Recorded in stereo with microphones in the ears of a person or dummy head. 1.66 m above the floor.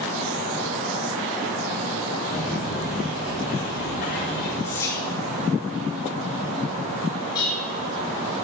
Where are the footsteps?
25° left (ahead or behind), 2 m; by 4.5 s 60° left (ahead or behind), 5 m.